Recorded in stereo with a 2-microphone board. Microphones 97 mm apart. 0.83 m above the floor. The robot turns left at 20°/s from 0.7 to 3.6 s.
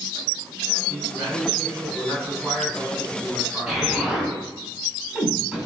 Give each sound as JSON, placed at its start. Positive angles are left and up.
{"t": 0.9, "sound": "a man speaking", "azimuth_deg": -145, "distance_m": 5.5}
{"t": 3.7, "sound": "an explosion", "side_deg": -5, "distance_m": 6.0}